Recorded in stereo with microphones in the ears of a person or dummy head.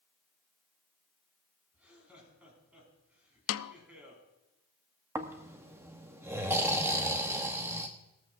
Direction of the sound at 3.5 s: 65° left (ahead or behind).